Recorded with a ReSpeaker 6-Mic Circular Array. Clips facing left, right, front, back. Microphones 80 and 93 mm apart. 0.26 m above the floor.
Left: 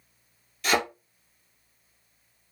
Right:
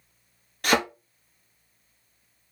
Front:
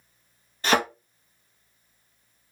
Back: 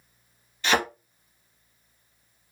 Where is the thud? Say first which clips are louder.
Right 2 dB, front 2 dB; 50° right, 1.1 m.